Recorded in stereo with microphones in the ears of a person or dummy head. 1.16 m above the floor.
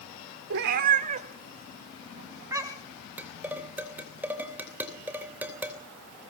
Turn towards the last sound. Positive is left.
turn(degrees=-10)  # may be behind; listen again after turning